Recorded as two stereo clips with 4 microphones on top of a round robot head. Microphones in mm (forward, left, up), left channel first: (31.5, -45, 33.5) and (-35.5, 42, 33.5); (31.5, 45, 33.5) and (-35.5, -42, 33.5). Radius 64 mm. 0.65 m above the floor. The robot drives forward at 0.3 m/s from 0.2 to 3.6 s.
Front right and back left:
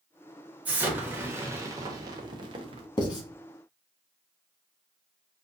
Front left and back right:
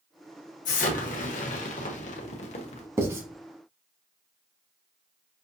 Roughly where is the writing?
Right.